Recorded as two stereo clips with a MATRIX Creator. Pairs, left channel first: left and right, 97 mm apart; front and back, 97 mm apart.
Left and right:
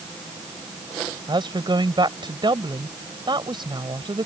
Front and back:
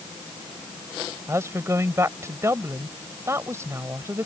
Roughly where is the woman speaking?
Behind right.